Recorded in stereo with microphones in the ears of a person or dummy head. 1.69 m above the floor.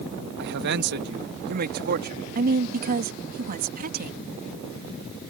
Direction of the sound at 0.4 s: 70° right (ahead or behind).